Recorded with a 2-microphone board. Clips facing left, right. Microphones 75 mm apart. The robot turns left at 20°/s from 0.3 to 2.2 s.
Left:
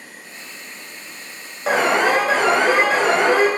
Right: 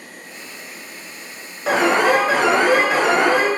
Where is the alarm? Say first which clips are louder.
Right 1 dB; centre (ahead or behind), 1.0 m; by 3.5 s 5° right (ahead or behind), 1.0 m.